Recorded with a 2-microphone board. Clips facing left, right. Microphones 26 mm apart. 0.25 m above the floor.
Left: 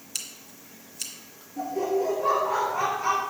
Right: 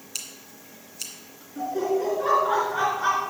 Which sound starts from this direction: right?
Laughter, at 1.6 s.